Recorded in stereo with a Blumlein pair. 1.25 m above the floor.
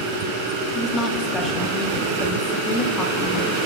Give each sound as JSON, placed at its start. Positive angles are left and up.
{"t": 0.8, "sound": "a woman speaking", "azimuth_deg": 20, "distance_m": 1.7}